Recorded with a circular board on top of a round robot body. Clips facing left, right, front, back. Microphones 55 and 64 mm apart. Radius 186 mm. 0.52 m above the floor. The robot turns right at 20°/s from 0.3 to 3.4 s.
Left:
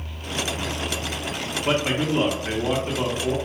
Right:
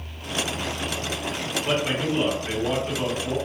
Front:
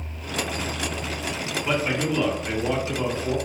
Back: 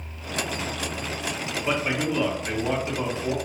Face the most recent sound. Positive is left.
turn(degrees=140)